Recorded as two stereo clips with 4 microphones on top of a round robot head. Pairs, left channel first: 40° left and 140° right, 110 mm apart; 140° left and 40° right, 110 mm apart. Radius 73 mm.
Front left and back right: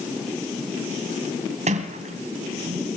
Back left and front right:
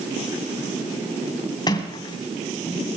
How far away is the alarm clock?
I don't hear an alarm clock.